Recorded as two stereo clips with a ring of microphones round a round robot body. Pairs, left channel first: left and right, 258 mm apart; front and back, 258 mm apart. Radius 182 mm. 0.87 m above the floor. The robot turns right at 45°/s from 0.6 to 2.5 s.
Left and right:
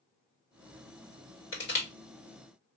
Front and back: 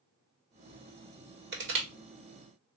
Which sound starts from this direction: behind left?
Crushing, at 1.5 s.